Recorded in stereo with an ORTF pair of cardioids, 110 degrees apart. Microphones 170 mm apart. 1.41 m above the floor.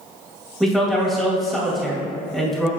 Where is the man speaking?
Straight ahead, 2.5 m.